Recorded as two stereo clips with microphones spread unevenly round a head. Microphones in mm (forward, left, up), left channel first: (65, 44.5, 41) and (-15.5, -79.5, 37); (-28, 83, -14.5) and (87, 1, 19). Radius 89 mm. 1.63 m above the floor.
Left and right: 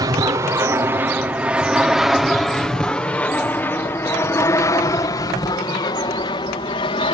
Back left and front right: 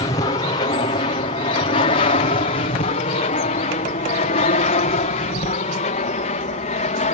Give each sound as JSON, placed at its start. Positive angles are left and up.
{"t": 0.0, "sound": "an aircraft", "azimuth_deg": 180}